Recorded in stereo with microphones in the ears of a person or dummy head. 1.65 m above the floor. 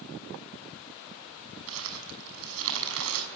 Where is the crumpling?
75° right (ahead or behind), 6 m.